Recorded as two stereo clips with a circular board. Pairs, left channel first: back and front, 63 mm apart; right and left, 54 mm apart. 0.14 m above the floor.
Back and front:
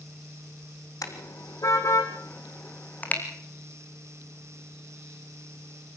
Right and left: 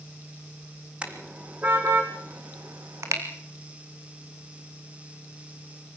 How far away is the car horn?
About 3 m.